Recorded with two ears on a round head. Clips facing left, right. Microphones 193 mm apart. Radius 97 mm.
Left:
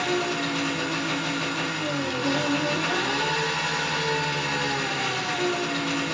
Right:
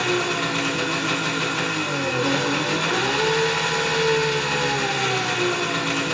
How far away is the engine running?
About 1.1 m.